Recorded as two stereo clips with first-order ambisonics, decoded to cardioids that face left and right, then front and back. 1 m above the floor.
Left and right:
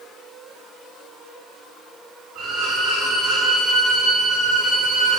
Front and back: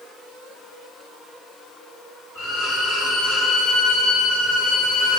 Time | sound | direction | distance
2.4 | a violin | 25° right | 4 m